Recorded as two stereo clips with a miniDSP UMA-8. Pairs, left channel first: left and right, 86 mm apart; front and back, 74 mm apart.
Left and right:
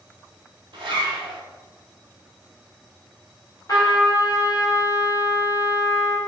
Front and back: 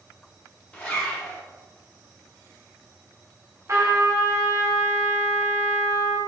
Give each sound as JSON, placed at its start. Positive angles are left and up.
{"t": 0.7, "sound": "a zipper", "azimuth_deg": -70, "distance_m": 0.6}
{"t": 3.7, "sound": "a trumpet", "azimuth_deg": 135, "distance_m": 0.5}